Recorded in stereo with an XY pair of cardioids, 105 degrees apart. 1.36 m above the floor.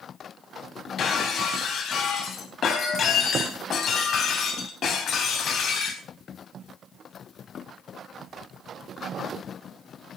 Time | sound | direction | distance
1.0 | breaking glass | 60° left | 3.5 m